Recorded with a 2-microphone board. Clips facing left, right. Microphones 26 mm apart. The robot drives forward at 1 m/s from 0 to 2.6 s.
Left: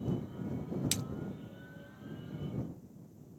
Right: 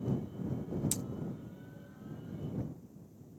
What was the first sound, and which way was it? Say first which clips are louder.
A splash: left 3 dB; 55° left (ahead or behind).